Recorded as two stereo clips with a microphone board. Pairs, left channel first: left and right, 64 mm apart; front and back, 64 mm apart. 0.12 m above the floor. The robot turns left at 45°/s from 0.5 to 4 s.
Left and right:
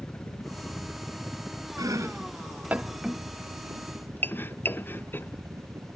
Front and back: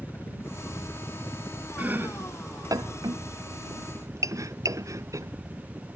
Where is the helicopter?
35° left; by 6.0 s 110° right.